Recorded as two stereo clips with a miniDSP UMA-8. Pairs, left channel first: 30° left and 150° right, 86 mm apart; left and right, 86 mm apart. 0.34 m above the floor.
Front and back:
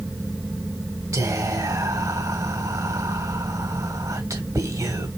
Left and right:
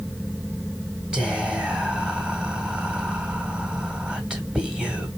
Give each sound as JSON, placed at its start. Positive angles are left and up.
{"t": 1.1, "sound": "whispering", "azimuth_deg": -165, "distance_m": 1.7}